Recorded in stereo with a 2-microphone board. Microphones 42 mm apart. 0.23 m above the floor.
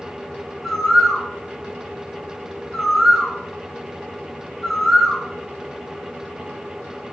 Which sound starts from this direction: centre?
A bird, at 0.6 s.